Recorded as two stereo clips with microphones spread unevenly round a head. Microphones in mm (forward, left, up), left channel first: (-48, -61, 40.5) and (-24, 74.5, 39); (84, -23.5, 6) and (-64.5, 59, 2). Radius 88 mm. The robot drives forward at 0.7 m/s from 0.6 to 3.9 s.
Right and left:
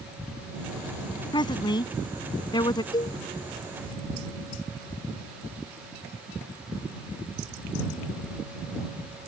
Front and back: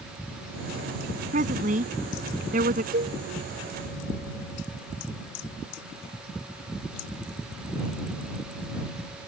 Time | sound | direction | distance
1.3 | a woman speaking | 160° right | ?
2.9 | a cowbell | 160° right | ?